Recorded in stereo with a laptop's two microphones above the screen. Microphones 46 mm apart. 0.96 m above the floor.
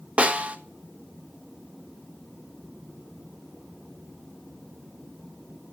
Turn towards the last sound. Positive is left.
turn(degrees=-35)  # may be behind; listen again after turning